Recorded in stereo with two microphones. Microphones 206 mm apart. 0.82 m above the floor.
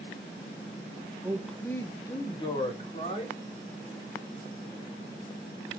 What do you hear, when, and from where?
1.2 s a man speaking: 15° right (ahead or behind), 0.6 m; by 3.4 s 30° left (ahead or behind), 2.5 m